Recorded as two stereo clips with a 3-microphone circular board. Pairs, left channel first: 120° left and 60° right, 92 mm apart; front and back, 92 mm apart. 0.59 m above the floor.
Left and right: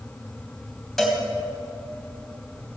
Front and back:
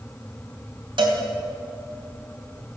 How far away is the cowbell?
About 2.5 m.